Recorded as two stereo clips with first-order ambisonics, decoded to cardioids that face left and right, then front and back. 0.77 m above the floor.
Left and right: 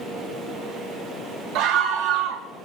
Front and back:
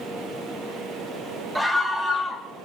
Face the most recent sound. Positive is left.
turn(degrees=-95)